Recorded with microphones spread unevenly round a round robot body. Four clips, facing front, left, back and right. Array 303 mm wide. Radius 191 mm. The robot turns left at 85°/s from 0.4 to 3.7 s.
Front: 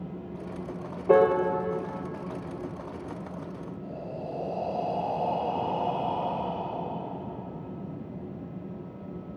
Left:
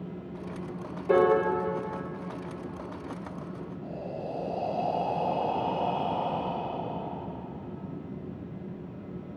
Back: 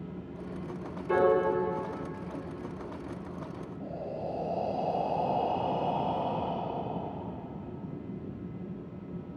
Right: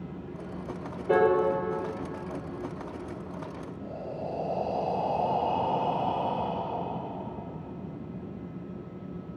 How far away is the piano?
About 1.5 m.